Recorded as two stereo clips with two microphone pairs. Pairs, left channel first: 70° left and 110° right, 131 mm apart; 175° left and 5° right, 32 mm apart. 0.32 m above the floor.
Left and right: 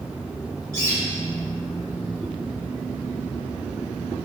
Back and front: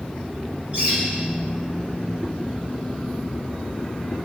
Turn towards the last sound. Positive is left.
turn(degrees=-50)